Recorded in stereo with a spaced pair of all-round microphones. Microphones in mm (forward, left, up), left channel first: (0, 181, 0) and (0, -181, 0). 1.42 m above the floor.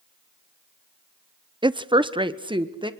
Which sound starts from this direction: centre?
A woman speaking, at 1.6 s.